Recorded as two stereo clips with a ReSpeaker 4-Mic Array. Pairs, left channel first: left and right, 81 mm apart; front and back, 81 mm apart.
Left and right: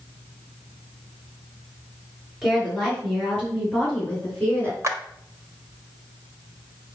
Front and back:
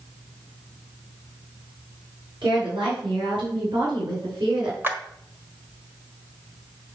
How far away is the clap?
About 1.3 m.